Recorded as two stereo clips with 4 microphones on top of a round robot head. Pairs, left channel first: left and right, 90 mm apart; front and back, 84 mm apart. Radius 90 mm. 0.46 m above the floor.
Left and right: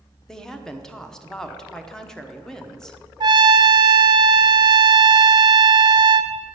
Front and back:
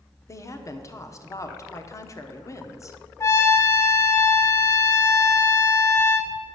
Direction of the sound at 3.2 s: 55° right.